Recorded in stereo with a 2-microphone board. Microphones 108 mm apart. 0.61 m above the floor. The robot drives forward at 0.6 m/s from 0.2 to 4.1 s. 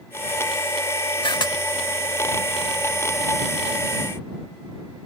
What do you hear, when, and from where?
1.2 s a camera shutter: 50° left (ahead or behind); by 1.6 s 40° left (ahead or behind)